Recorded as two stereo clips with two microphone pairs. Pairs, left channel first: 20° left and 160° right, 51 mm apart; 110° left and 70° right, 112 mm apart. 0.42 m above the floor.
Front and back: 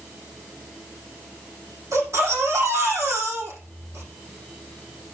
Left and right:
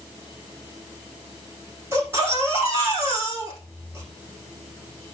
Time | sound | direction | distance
1.9 | a baby crying | 140° right | 9 m